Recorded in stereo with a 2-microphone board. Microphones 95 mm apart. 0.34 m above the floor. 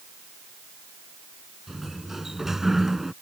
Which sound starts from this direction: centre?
A sliding door, at 1.7 s.